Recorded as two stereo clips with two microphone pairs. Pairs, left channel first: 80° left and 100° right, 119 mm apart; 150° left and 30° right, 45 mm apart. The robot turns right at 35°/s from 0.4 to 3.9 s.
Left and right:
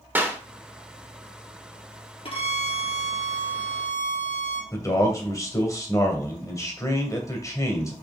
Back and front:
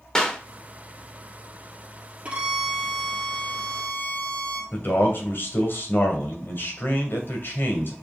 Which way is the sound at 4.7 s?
135° left.